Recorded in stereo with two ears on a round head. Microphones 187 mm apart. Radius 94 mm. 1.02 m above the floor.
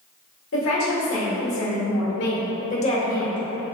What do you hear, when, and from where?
0.5 s a woman speaking: 75° left (ahead or behind), 1.7 m; by 3.4 s 5° left (ahead or behind), 0.7 m